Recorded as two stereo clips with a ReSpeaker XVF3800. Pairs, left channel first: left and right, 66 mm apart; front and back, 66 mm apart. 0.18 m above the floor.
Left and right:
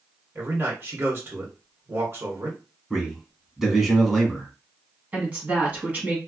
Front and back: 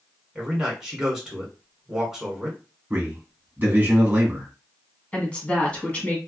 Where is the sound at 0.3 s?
100° right, 1.4 m.